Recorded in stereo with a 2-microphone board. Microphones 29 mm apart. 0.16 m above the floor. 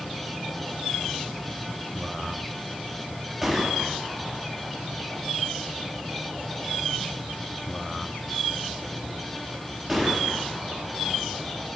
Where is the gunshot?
5° right (ahead or behind), 1.4 m.